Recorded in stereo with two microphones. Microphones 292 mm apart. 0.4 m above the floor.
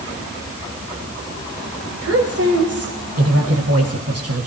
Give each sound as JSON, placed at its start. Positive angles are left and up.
{"t": 2.0, "sound": "a woman speaking", "side_deg": -55, "distance_m": 2.0}